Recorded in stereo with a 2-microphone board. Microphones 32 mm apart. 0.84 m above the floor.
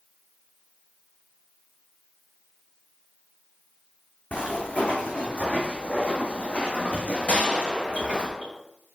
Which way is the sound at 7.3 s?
50° left (ahead or behind).